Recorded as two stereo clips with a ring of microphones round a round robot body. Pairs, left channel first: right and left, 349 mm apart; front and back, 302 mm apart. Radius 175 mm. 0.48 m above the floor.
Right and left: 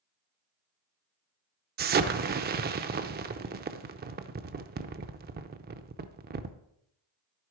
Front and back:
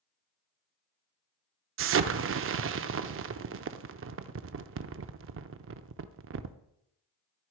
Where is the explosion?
145° left, 0.6 m.